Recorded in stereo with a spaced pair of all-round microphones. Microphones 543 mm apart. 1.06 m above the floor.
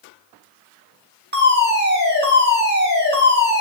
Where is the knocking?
I don't hear knocking.